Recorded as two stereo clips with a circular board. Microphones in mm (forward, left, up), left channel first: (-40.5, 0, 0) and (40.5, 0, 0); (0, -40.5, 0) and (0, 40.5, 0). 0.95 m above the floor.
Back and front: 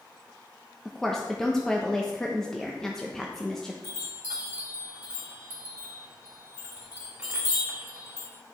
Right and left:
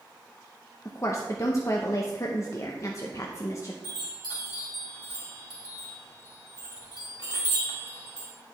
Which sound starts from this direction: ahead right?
A chime, at 3.8 s.